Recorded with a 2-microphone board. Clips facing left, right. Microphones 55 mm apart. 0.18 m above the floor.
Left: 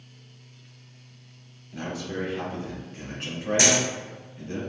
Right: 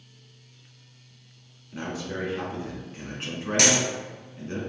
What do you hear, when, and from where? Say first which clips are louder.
1.7 s a man speaking: even; 30° right (ahead or behind), 1.5 m
3.6 s a dropped coin: even; 65° right (ahead or behind), 1.7 m